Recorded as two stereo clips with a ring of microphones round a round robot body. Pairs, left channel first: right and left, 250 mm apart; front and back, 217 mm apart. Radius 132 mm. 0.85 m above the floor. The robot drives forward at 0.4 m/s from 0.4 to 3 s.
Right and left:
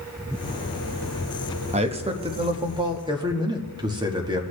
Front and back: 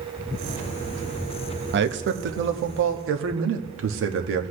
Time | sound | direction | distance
1.7 | a man speaking | 150° left | 1.0 m